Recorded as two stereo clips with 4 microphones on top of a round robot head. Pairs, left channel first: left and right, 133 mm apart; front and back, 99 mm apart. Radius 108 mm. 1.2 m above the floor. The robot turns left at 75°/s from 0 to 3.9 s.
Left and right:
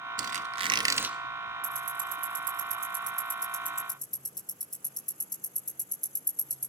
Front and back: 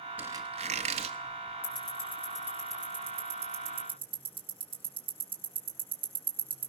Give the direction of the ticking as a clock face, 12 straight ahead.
1 o'clock.